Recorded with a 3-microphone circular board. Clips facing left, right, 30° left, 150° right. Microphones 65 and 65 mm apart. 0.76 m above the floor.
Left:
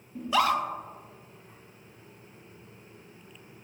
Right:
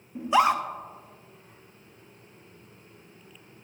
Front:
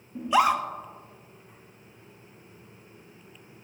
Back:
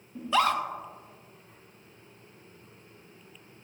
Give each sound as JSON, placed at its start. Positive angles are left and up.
{"t": 0.1, "sound": "a scream", "azimuth_deg": -35, "distance_m": 1.1}